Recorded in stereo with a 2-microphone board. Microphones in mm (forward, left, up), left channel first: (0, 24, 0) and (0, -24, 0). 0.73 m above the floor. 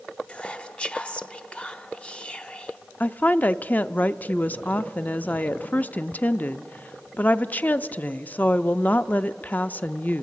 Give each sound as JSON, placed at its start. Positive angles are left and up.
{"t": 0.3, "sound": "whispering", "side_deg": 20, "distance_m": 0.6}
{"t": 3.0, "sound": "a woman speaking", "side_deg": 35, "distance_m": 0.5}